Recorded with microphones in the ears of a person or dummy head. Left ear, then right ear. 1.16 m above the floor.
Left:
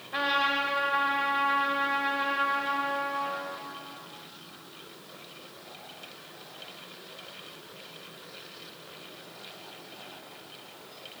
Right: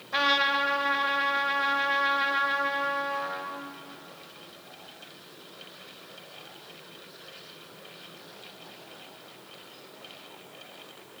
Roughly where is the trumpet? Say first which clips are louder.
Right 3 dB; right.